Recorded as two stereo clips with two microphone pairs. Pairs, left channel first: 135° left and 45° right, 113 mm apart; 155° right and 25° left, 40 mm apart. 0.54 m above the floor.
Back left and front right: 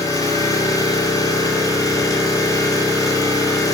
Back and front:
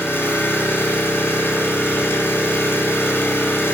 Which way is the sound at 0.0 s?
165° right.